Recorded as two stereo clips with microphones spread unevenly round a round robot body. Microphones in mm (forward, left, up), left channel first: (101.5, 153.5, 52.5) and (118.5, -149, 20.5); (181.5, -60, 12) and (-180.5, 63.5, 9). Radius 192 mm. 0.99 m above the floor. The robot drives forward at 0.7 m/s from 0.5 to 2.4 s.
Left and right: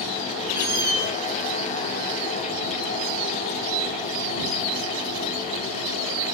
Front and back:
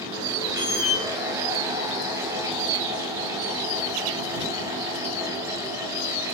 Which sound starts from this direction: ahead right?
A squeak, at 0.5 s.